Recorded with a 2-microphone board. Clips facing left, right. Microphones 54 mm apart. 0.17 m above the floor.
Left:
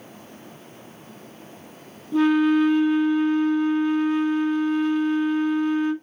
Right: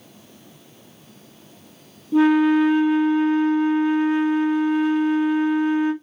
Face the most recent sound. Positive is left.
turn(degrees=-5)  # may be behind; listen again after turning